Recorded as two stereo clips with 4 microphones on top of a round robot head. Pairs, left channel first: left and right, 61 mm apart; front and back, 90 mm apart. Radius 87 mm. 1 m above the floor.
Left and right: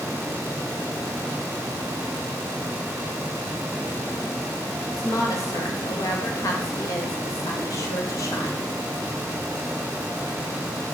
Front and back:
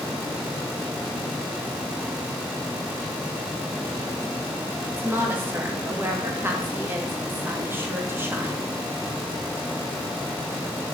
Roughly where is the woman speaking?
Behind left.